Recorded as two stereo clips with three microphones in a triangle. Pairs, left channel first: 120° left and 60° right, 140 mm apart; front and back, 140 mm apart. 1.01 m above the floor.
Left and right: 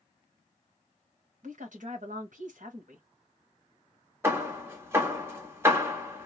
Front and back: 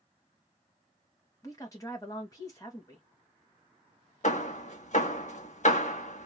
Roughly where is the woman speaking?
Ahead right.